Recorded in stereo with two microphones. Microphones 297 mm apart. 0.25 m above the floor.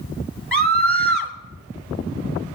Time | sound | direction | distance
0.5 | a scream | 45° right (ahead or behind) | 3 m